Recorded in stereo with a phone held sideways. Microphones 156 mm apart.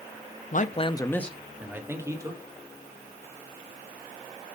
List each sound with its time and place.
0.5 s a man speaking: 55° left (ahead or behind), 0.7 m; by 2.4 s 20° right (ahead or behind), 1.8 m